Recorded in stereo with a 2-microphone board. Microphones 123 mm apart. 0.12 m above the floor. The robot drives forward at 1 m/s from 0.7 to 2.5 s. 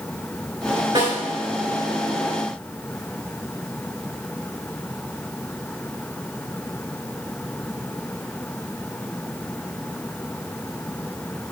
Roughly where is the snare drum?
Right.